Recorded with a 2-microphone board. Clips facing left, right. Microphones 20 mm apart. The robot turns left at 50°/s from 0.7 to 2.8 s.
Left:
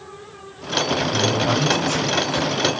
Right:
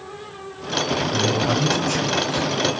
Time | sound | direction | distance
1.1 | a man speaking | 35° left | 4 m